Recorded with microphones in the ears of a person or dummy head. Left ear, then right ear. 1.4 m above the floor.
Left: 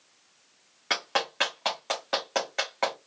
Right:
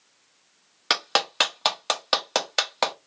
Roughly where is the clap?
Right.